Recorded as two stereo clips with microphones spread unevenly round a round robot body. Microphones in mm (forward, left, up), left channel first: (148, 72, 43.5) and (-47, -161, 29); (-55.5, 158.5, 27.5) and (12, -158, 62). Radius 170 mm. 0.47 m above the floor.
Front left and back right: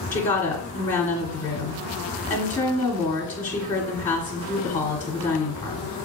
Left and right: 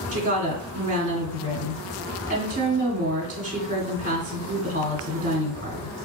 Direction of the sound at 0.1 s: 10° right.